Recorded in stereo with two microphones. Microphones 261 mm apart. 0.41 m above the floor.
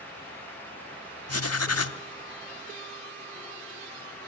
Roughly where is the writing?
Left.